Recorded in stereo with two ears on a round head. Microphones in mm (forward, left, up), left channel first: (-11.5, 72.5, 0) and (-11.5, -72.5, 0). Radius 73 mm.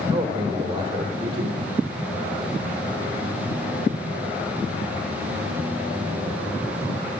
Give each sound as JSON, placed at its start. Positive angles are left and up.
{"t": 0.1, "sound": "a man speaking", "side_deg": -25, "distance_m": 1.0}